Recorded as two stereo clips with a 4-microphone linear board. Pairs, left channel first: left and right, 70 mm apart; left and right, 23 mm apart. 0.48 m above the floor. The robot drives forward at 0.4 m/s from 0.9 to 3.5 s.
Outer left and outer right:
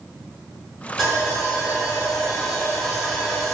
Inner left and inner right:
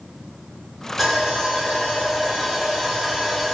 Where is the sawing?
Centre (ahead or behind), 1.3 m.